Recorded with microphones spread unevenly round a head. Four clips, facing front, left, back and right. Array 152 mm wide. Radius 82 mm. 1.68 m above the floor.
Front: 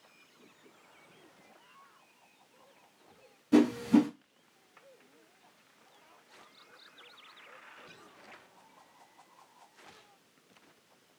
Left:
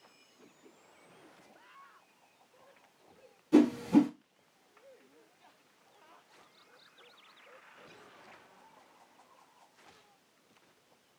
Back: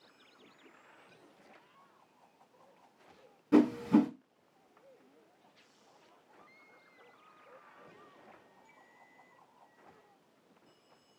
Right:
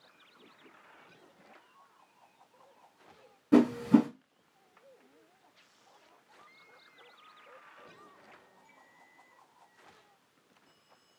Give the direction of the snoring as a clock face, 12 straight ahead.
No snoring in this recording.